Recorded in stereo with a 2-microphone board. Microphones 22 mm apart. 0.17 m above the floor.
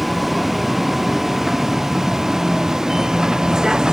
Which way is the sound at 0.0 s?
10° right (ahead or behind).